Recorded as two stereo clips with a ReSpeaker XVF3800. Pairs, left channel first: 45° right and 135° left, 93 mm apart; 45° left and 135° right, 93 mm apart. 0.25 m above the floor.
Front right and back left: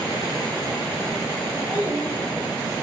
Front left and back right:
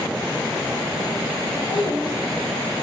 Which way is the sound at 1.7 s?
65° left.